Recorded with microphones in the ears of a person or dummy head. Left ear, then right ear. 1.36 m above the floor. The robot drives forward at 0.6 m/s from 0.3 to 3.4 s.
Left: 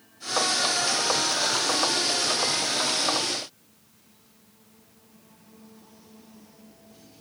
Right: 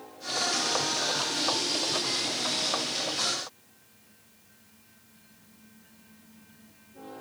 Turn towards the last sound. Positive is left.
No sound to turn to.